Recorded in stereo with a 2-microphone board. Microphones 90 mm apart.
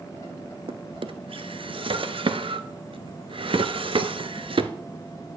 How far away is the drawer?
About 0.8 m.